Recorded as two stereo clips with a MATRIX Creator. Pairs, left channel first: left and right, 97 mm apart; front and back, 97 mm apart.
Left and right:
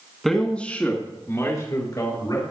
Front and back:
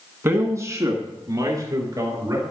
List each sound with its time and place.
0.2 s a man speaking: 175° left, 1.7 m; by 2.4 s 130° left, 3 m